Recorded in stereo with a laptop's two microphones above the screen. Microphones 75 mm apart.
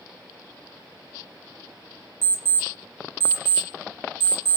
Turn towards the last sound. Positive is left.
turn(degrees=-30)  # may be behind; listen again after turning